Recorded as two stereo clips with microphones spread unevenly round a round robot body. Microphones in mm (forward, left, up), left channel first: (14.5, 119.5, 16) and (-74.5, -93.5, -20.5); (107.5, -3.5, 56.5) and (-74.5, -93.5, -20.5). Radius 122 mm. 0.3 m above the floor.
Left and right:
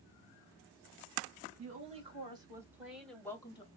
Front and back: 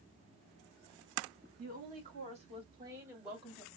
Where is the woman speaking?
160° right, 2.5 m; by 3.7 s 135° left, 1.7 m.